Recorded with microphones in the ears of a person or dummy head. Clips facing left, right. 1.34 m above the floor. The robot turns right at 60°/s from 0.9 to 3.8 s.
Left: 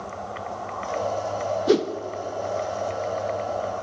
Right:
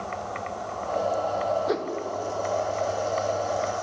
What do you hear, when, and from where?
1.7 s a whoosh: 40° left (ahead or behind), 0.9 m; by 1.9 s 55° left (ahead or behind), 0.9 m